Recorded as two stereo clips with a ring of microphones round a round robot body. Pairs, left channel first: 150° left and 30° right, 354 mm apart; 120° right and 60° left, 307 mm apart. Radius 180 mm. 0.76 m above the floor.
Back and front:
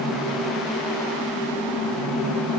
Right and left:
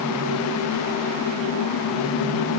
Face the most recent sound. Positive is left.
No sound to turn to.